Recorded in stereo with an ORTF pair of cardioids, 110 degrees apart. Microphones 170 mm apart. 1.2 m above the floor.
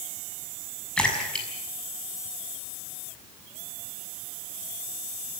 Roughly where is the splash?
Ahead.